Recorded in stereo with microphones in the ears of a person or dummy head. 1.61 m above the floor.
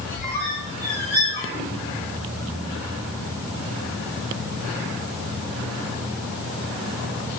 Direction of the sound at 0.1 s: 30° left (ahead or behind).